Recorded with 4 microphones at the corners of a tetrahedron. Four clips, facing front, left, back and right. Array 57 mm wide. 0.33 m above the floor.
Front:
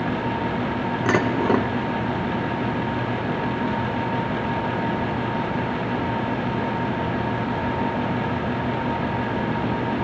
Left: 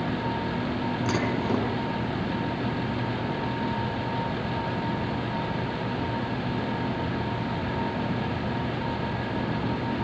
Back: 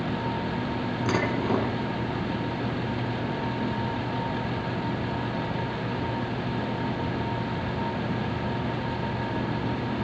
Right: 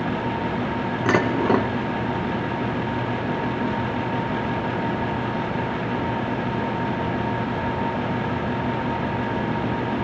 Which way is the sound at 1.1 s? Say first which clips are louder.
Right 9 dB, front 6 dB; 50° right.